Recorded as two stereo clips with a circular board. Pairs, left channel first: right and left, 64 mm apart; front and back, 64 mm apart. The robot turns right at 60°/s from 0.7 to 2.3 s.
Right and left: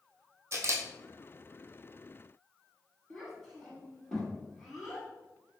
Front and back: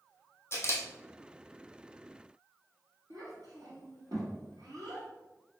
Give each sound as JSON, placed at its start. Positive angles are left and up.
{"t": 0.5, "sound": "a camera shutter", "azimuth_deg": 45, "distance_m": 0.8}
{"t": 3.1, "sound": "a child speaking", "azimuth_deg": 180, "distance_m": 1.9}